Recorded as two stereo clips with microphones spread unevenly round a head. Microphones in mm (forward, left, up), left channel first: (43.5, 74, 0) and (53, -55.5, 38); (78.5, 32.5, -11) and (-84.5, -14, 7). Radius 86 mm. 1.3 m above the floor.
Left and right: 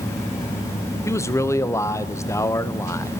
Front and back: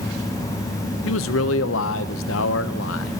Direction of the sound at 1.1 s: 20° left.